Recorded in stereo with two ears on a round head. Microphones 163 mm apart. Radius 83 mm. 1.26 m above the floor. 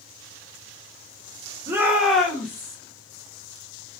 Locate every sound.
1.7 s a shout: 20° right (ahead or behind), 1.0 m; by 2.8 s 20° left (ahead or behind), 1.3 m